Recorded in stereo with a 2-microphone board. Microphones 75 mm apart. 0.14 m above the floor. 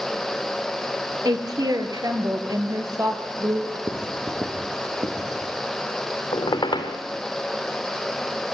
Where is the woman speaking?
55° right (ahead or behind), 2.5 m.